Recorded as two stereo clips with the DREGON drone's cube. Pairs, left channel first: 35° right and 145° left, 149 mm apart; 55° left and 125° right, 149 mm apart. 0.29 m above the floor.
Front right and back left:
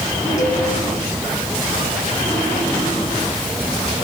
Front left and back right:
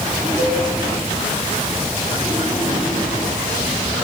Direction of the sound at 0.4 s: 55° right.